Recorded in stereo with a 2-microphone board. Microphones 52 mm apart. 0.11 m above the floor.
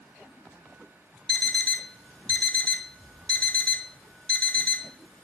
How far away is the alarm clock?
About 0.5 m.